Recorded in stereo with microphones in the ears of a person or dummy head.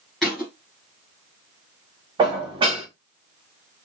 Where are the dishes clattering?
30° right (ahead or behind), 1.0 m.